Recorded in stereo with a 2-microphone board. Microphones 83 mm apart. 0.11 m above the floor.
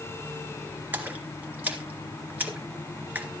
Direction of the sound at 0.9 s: 20° right (ahead or behind).